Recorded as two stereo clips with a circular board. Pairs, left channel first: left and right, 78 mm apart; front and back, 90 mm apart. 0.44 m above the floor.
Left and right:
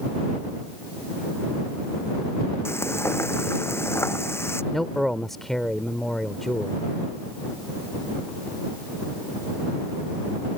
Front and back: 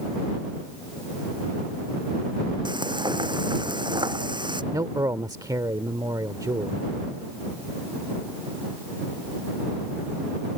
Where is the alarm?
I don't hear an alarm.